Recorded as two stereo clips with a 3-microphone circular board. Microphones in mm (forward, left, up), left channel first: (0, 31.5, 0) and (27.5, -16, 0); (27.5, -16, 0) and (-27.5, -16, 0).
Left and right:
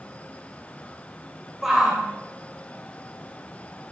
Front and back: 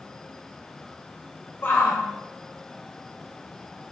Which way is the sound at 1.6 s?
20° left.